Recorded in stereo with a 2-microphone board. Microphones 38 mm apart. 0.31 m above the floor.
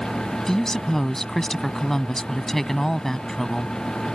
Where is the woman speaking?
10° left (ahead or behind).